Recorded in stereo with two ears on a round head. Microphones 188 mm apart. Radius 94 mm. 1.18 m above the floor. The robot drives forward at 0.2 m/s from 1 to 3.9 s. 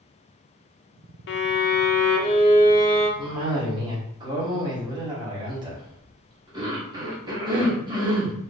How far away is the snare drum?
I don't hear a snare drum.